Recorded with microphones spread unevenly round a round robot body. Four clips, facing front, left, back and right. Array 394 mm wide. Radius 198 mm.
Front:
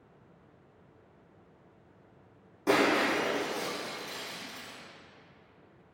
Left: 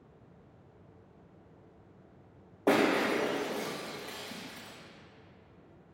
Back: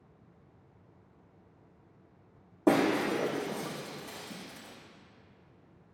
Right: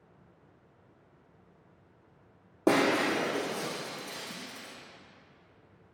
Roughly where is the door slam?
No door slam in this recording.